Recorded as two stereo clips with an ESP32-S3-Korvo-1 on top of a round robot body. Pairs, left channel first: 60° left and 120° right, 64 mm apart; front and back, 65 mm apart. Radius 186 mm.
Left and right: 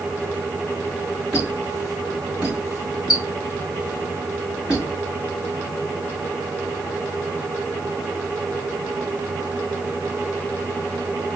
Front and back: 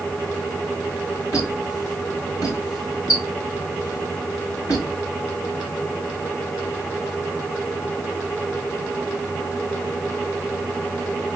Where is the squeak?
35° right, 3 m.